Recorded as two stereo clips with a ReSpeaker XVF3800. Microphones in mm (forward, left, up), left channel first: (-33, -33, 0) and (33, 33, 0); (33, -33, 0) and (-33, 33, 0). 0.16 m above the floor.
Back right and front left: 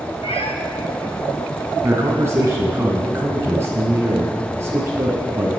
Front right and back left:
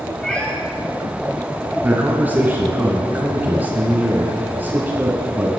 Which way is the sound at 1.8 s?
75° left.